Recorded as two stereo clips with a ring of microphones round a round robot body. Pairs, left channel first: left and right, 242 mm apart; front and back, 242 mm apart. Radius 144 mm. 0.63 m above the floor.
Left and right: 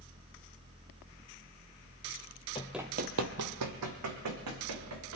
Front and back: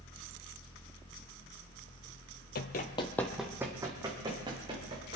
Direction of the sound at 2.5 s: 25° left.